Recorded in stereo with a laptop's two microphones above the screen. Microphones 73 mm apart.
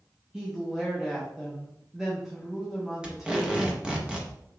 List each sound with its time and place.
0.3 s a woman speaking: 5° right (ahead or behind), 0.8 m
3.0 s tape being pulled: 15° right (ahead or behind), 0.7 m